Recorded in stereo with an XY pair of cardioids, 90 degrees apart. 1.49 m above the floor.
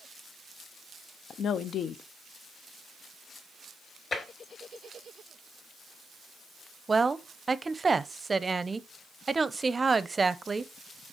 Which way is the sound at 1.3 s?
65° left.